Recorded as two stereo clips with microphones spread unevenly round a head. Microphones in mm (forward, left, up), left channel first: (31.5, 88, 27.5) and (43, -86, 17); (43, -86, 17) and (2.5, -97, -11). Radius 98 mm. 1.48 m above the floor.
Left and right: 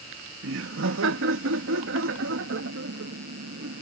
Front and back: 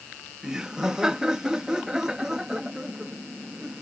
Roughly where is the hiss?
I don't hear a hiss.